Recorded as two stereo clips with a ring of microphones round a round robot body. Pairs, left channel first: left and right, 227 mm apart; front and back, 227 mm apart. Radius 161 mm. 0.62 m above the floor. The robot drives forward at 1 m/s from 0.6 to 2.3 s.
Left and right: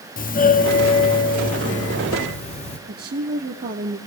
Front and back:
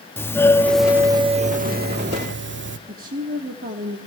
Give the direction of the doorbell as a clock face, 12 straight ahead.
10 o'clock.